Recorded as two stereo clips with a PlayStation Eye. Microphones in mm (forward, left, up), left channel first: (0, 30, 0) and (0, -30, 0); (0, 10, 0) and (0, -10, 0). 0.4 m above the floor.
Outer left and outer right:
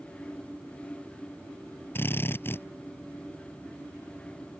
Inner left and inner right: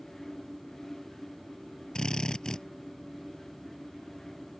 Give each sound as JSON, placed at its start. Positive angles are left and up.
{"t": 1.9, "sound": "a drill", "side_deg": 40}